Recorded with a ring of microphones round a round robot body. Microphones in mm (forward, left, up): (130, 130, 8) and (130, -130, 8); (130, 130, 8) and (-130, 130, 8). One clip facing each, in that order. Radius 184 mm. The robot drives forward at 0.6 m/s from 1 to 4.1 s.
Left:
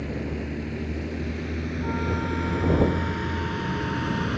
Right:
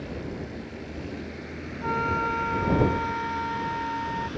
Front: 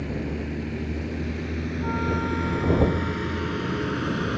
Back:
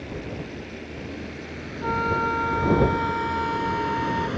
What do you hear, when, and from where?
0.0 s a vehicle: 40° left; by 4.4 s 75° left
1.8 s a flute: 130° right; by 4.3 s 145° right